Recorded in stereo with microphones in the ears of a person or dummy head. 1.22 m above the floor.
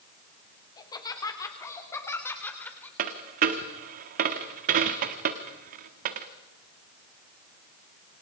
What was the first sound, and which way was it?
Laughter, 20° left (ahead or behind).